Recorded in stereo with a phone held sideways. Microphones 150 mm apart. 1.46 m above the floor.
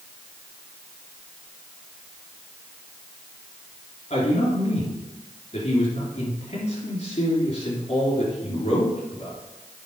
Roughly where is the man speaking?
Left.